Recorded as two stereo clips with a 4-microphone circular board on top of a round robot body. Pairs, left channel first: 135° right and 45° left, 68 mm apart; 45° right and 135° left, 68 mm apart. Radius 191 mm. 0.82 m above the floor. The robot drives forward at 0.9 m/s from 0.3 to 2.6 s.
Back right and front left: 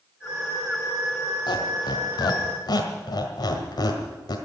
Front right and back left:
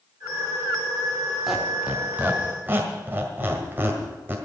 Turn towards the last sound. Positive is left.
turn(degrees=-160)